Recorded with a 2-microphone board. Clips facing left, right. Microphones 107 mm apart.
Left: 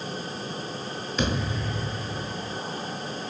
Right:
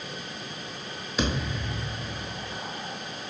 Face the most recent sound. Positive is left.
turn(degrees=-5)  # may be behind; listen again after turning